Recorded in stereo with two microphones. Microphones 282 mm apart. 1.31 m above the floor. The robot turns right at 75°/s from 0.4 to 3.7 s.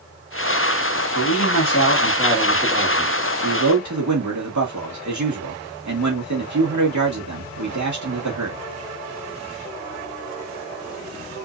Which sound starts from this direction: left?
A man speaking, at 1.1 s.